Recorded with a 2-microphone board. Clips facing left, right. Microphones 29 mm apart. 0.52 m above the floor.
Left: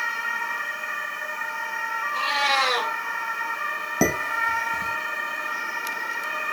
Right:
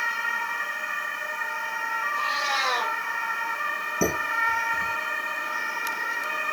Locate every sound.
2.1 s a cat meowing: 60° left (ahead or behind), 3.5 m
4.0 s dishes clattering: 75° left (ahead or behind), 2.5 m